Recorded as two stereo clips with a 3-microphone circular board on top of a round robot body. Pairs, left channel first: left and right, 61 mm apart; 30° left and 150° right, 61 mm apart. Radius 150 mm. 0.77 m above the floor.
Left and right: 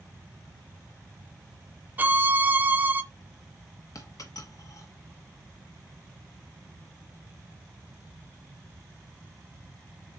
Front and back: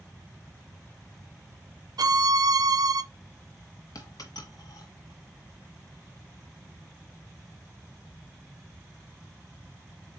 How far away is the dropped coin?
About 1.2 m.